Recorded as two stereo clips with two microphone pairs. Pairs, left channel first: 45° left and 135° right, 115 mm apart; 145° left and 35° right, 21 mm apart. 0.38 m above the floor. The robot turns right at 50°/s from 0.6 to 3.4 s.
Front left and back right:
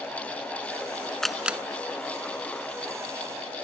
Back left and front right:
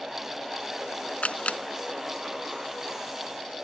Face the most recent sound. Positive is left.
turn(degrees=-120)